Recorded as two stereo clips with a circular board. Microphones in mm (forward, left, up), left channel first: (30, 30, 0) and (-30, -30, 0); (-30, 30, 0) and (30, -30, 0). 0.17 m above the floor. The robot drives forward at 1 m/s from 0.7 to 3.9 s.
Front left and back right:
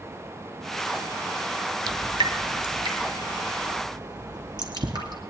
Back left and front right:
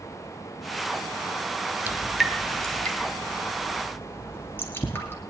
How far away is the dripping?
About 0.8 m.